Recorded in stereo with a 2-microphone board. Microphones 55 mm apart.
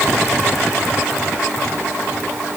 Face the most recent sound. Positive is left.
No sound to turn to.